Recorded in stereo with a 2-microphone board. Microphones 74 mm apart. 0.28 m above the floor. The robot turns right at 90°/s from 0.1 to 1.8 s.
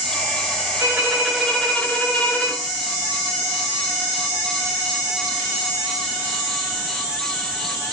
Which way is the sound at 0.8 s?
55° right.